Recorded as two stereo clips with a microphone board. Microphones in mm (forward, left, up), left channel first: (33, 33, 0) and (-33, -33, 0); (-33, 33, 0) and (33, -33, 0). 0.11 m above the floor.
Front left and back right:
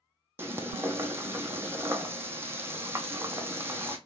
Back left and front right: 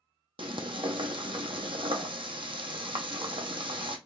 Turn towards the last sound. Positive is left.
turn(degrees=-70)